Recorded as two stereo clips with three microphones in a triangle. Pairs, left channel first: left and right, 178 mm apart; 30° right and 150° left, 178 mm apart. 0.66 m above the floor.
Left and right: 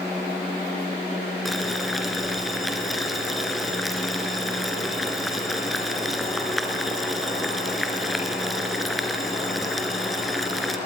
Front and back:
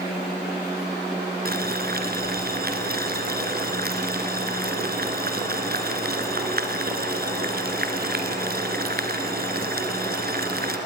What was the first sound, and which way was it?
Boiling, straight behind.